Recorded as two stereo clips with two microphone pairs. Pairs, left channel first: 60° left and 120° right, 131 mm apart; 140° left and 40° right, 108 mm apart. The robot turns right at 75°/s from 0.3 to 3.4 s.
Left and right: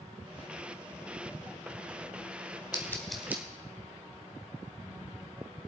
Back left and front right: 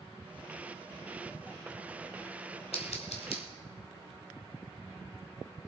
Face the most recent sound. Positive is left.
turn(degrees=170)